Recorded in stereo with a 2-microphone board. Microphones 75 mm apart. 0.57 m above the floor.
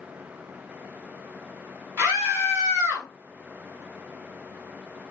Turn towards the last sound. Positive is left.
turn(degrees=-35)  # may be behind; listen again after turning